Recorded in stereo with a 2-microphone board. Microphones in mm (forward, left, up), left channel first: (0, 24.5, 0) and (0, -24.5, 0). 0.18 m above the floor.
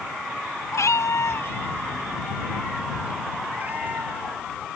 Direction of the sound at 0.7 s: 80° left.